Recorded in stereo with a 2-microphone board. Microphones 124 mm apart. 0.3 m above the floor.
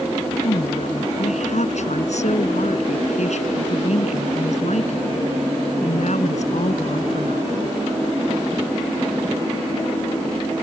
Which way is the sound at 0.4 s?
70° left (ahead or behind).